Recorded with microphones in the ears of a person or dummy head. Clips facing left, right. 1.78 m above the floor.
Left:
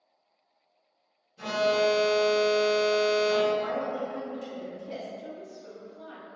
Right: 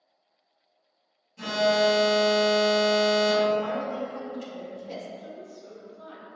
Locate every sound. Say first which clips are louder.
1.4 s an alarm: right 2 dB; 60° right (ahead or behind), 1.4 m
3.6 s a woman speaking: right 1 dB; 85° right, 1.7 m
5.2 s a woman speaking: even; centre (ahead or behind), 1.2 m